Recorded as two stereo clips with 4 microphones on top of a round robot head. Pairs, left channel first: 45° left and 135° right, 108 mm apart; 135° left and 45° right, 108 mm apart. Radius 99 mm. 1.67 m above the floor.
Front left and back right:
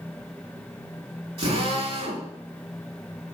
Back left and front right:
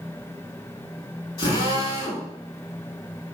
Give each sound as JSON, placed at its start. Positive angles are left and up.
{"t": 1.4, "sound": "a drill", "azimuth_deg": -170, "distance_m": 5.5}